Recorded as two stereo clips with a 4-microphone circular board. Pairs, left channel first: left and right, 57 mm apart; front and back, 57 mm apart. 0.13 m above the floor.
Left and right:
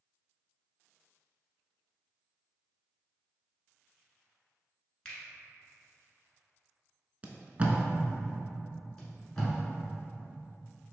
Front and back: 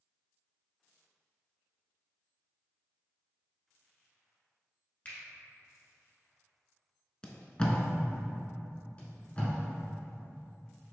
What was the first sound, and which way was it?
A finger snap, 30° left.